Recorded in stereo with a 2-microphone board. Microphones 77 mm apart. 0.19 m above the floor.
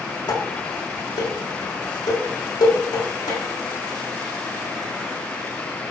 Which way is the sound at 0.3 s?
60° left (ahead or behind).